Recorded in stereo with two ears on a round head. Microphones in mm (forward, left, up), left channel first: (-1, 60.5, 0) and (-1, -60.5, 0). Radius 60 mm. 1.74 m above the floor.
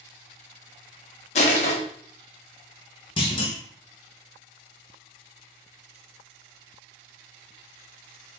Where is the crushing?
50° left (ahead or behind), 1.2 m.